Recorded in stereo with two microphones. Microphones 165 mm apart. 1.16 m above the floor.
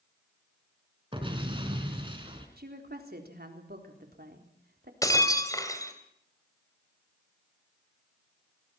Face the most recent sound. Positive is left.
turn(degrees=20)  # may be behind; listen again after turning